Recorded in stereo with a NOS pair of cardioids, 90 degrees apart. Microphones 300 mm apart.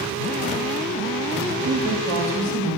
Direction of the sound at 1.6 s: 70° right.